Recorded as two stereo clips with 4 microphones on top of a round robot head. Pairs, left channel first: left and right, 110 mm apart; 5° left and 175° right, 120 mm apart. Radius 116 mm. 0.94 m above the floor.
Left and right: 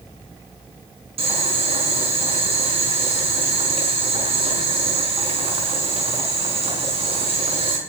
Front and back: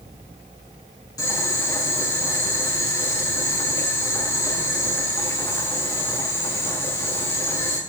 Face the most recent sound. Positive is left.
turn(degrees=-60)